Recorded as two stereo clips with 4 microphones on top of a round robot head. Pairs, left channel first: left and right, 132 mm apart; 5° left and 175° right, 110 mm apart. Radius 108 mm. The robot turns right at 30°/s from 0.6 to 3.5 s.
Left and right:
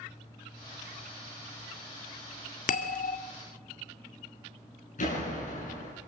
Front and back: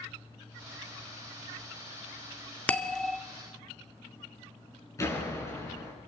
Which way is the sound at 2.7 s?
80° left.